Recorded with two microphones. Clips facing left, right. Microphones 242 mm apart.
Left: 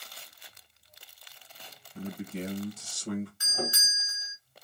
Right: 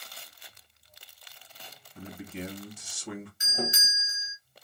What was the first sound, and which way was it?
A man speaking, 45° left (ahead or behind).